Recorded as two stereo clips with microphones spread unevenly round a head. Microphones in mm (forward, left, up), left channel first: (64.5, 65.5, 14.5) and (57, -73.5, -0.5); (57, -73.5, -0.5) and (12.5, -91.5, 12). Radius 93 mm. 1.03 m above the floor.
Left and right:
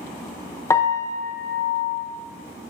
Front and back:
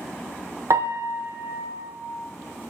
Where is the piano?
160° left, 0.6 m.